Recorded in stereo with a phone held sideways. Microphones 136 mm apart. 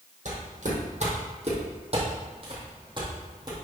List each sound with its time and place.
0.2 s footsteps: 60° right (ahead or behind), 3.5 m; by 3.5 s 30° right (ahead or behind), 4 m